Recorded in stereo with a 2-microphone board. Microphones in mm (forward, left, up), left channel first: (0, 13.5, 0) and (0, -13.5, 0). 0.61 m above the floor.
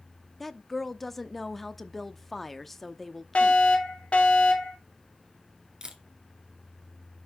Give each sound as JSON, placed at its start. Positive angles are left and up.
{"t": 0.4, "sound": "a woman speaking", "side_deg": 5, "distance_m": 0.7}
{"t": 3.4, "sound": "a fire alarm", "side_deg": 50, "distance_m": 3.0}
{"t": 5.8, "sound": "a camera shutter", "side_deg": -30, "distance_m": 1.9}